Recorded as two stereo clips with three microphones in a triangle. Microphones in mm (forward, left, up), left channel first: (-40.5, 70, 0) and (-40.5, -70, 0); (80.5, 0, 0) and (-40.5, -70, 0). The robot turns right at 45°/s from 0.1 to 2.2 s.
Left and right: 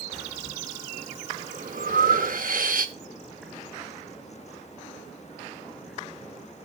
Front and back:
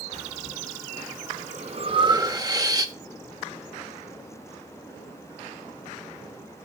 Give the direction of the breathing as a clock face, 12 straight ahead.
6 o'clock.